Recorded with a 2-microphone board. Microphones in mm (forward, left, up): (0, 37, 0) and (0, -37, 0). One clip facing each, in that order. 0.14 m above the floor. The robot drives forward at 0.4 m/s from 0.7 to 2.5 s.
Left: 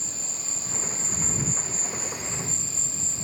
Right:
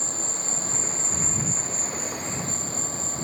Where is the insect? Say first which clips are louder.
Right 7 dB; 30° right (ahead or behind); by 3.2 s 50° right (ahead or behind).